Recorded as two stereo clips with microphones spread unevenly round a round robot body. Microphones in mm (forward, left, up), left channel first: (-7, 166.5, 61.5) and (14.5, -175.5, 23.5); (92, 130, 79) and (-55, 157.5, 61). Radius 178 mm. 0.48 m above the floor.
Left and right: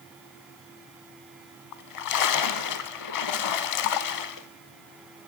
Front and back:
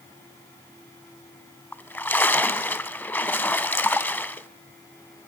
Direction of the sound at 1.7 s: 65° left.